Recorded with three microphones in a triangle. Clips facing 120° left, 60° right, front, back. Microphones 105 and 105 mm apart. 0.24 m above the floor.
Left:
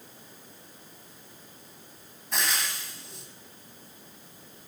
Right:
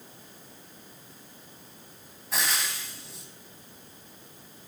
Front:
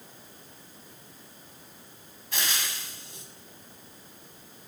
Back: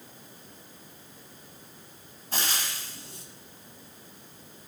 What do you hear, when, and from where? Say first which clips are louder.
2.3 s frying: even, back 1 dB; 150° right, 1.0 m